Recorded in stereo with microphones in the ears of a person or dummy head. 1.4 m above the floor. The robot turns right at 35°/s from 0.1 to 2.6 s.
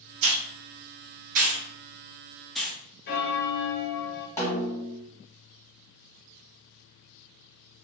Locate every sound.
0.2 s a hiss: 80° right, 0.7 m; by 2.8 s centre (ahead or behind), 0.7 m
3.1 s a bell: 55° left (ahead or behind), 0.6 m
4.4 s a snare drum: 10° left (ahead or behind), 0.8 m